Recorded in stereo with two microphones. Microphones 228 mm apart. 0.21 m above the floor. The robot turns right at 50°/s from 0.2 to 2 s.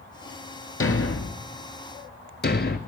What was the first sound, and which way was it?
A thud, 70° left (ahead or behind).